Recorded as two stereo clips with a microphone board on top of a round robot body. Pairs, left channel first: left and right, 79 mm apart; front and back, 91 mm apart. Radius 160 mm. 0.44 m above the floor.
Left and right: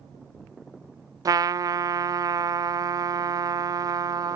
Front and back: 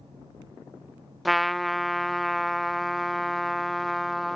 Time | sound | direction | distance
1.2 | a trumpet | 90° right | ?